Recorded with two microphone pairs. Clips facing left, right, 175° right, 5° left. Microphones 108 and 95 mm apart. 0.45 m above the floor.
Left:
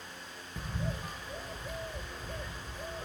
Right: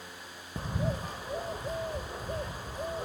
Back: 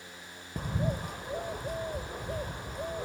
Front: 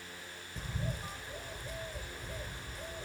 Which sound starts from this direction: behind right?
A bird, at 0.6 s.